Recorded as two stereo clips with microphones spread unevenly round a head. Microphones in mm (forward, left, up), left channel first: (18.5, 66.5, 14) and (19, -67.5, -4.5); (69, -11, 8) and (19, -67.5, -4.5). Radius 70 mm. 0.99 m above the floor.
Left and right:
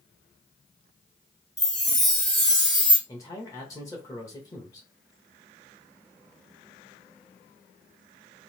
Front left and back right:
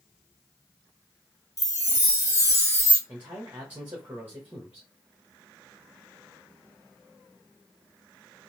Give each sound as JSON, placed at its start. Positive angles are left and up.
{"t": 1.6, "sound": "a chime", "azimuth_deg": 0, "distance_m": 1.3}
{"t": 3.1, "sound": "a man speaking", "azimuth_deg": 160, "distance_m": 1.1}